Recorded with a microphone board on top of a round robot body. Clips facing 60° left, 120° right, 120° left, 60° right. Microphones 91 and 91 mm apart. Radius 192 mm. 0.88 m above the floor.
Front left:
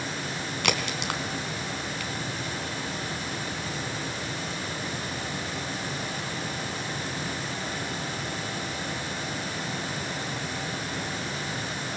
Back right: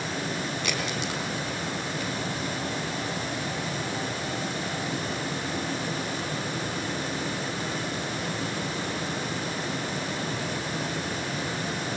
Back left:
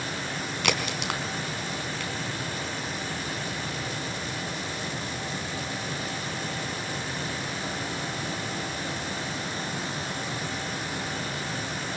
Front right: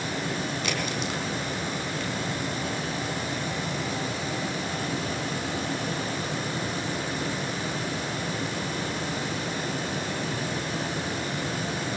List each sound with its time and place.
0.6 s a crack: 90° left, 4 m